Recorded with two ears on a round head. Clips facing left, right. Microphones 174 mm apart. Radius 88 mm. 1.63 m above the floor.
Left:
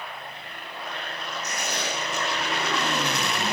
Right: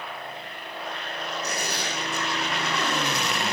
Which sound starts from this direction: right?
Tearing paper, at 1.4 s.